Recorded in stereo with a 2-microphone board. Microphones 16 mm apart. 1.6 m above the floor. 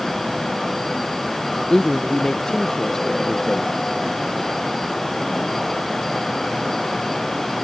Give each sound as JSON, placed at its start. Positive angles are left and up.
{"t": 1.6, "sound": "a man speaking", "side_deg": 45}